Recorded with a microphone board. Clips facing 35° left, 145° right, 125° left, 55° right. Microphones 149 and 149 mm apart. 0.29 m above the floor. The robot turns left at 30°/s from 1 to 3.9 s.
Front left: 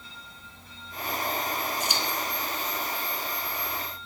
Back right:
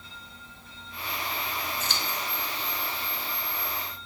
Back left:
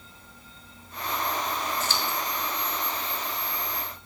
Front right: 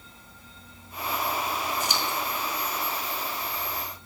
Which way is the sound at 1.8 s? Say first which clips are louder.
Front left 3 dB, front right 1 dB; 15° right.